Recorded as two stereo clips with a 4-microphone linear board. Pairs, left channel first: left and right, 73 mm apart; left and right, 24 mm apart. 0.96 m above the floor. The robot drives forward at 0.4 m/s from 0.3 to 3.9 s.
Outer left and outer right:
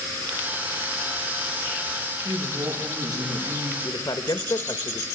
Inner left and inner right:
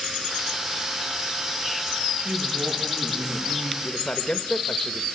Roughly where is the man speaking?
Left.